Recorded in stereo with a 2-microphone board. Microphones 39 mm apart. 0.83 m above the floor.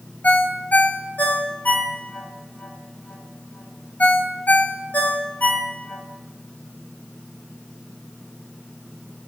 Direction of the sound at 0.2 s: 45° left (ahead or behind).